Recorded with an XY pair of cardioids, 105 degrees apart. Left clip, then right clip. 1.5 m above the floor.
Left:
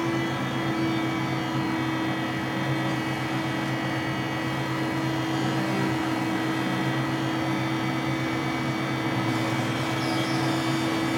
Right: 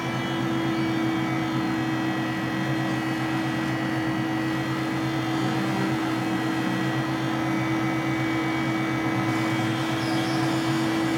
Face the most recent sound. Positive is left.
turn(degrees=5)